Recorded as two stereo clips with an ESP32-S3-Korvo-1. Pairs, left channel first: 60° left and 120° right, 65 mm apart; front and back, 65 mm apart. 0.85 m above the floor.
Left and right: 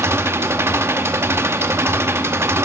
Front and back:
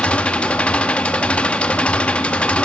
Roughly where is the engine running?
Right.